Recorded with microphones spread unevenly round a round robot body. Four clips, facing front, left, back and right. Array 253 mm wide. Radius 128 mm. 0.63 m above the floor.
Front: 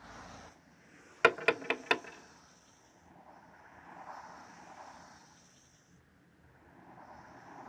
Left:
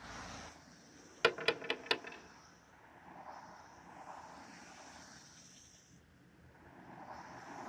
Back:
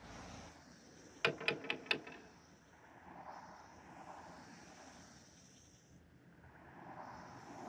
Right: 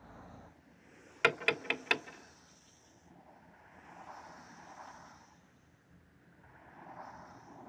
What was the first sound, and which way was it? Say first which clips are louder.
Tapping: right 2 dB, front 11 dB; straight ahead.